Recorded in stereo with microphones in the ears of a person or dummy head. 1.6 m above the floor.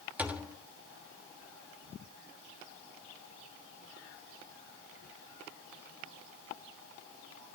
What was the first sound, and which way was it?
A thud, 10° right (ahead or behind).